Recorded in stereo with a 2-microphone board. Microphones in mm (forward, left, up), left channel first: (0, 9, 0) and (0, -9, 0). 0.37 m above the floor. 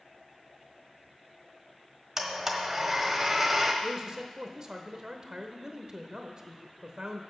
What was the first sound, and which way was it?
A blender, 15° right (ahead or behind).